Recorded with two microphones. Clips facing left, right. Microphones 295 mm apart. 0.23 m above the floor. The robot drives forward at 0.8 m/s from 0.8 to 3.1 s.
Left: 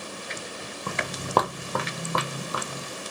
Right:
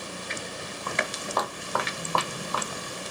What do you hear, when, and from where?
0.9 s footsteps: 40° left (ahead or behind), 0.7 m; by 2.9 s 15° left (ahead or behind), 2 m